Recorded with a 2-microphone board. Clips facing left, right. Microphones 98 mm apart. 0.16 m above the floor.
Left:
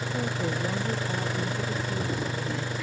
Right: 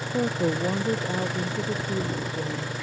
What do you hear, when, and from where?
0.1 s a woman speaking: 30° right (ahead or behind)